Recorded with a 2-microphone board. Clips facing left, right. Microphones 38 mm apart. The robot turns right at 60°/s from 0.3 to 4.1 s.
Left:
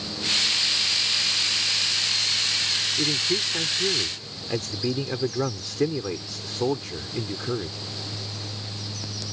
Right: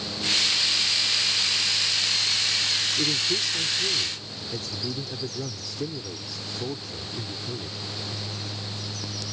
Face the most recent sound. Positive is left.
turn(degrees=65)